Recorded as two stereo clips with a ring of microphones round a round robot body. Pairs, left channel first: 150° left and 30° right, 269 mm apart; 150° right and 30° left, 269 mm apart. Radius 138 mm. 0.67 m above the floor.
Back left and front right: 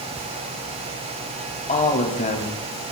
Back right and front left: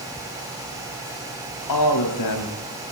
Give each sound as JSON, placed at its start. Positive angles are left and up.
{"t": 1.7, "sound": "a man speaking", "azimuth_deg": -145, "distance_m": 5.0}